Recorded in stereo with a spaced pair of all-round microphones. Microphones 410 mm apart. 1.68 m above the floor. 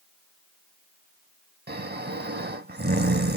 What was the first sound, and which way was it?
Snoring, 25° right (ahead or behind).